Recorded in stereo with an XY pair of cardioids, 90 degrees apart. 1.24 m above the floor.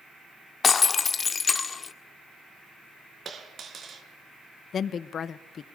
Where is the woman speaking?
60° left, 1.1 m.